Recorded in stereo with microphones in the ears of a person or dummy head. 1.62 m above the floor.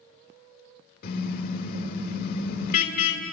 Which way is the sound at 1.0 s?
55° left (ahead or behind).